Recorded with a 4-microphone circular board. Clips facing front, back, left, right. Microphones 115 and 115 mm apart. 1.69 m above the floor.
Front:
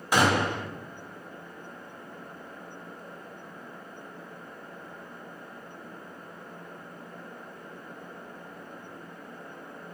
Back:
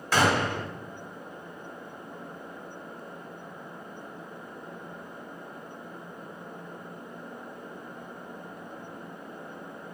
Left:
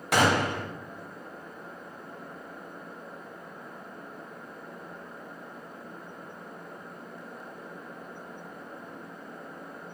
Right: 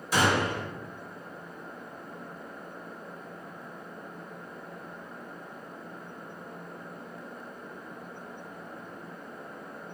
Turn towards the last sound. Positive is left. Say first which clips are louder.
# even, left 2 dB
turn(degrees=75)